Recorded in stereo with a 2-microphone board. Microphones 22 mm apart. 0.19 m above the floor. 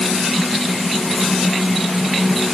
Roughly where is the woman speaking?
No woman speaking in this recording.